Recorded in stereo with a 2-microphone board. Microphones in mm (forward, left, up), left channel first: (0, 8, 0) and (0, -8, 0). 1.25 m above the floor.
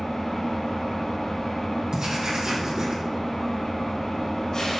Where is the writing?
65° right (ahead or behind), 3 m.